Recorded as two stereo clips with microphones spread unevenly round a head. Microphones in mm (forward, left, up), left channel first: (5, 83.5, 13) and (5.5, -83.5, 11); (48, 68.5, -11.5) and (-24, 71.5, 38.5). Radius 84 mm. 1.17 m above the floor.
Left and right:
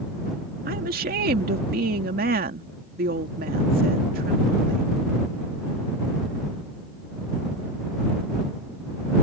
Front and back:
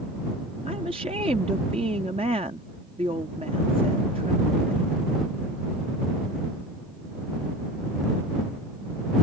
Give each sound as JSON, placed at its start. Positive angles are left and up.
{"t": 0.7, "sound": "a woman speaking", "azimuth_deg": -130}